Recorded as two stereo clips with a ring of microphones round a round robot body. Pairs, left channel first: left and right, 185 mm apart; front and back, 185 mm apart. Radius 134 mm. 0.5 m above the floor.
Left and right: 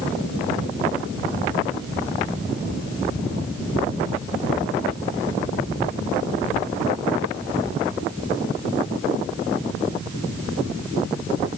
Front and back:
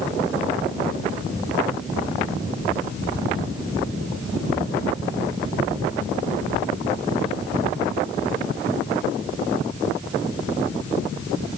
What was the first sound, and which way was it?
Only background noise.